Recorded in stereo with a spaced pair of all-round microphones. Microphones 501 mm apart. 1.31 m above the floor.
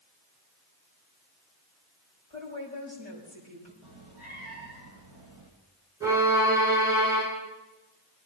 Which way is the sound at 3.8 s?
65° right (ahead or behind).